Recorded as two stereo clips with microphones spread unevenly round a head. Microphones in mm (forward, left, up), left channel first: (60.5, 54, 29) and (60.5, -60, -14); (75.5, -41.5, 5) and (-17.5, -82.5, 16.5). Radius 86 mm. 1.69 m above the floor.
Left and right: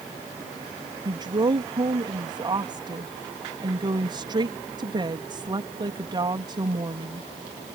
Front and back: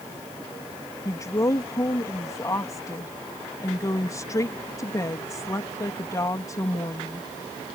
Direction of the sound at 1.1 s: 35° right.